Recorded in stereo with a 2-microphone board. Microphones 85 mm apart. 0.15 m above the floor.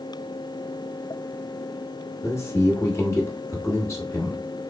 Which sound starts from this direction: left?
A man speaking, at 2.2 s.